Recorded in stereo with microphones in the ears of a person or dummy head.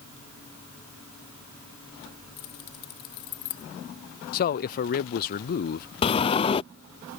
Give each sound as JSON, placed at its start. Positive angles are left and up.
{"t": 2.4, "sound": "keys jangling", "side_deg": 50}
{"t": 4.3, "sound": "a man speaking", "side_deg": 45}
{"t": 6.0, "sound": "a sliding door", "side_deg": 25}